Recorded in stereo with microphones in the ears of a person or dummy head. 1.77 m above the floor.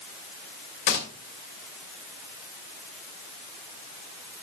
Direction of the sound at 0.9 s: 60° left (ahead or behind).